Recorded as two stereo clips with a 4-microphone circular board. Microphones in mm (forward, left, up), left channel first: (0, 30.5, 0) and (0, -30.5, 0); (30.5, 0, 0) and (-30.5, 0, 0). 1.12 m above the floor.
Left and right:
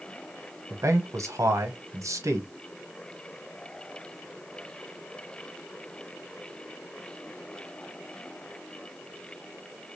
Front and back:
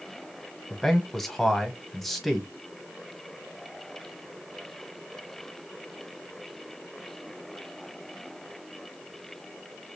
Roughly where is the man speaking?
Right.